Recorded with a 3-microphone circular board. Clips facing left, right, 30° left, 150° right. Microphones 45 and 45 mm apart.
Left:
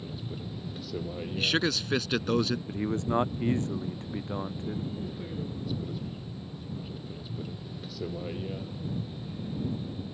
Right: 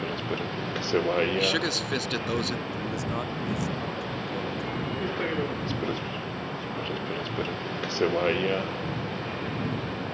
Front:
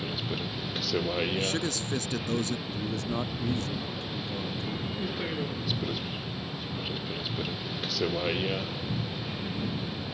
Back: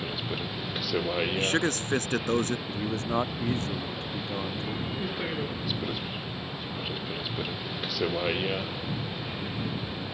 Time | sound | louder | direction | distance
0.0 | a vehicle | right 9 dB, back 1 dB | 70° right | ?
1.4 | a man speaking | right 2 dB, back 4 dB | 175° left | ?
2.7 | a man speaking | left 1 dB, back 2 dB | 155° left | ?